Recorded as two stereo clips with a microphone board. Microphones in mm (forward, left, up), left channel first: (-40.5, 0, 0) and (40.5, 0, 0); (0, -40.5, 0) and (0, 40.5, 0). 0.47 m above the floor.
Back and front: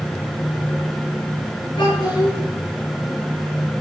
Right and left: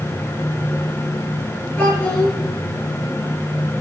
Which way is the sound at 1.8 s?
150° right.